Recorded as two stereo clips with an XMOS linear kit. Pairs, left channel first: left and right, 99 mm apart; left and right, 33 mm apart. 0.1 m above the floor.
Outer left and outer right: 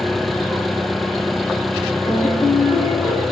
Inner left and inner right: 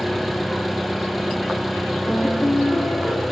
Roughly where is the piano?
Left.